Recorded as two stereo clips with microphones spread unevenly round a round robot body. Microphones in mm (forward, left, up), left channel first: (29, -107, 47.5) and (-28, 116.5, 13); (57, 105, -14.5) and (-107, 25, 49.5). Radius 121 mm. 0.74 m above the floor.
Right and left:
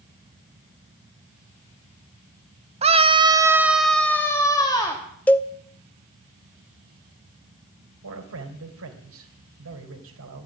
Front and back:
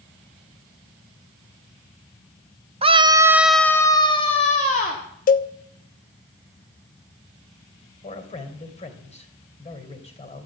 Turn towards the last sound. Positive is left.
turn(degrees=75)